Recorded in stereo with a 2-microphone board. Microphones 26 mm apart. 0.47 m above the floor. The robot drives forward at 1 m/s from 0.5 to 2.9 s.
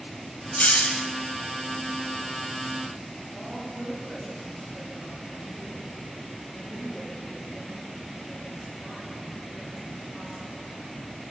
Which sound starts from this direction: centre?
A woman speaking, at 3.3 s.